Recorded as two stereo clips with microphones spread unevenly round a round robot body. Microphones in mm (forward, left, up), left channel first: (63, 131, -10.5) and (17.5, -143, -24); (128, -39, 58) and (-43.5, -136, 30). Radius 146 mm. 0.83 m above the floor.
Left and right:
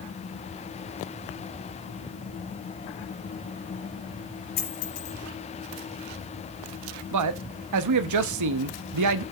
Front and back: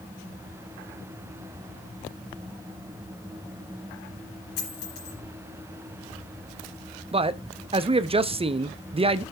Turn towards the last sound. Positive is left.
turn(degrees=-95)